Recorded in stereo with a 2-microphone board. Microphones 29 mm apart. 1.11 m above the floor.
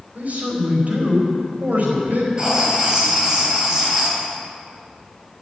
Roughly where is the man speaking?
Right.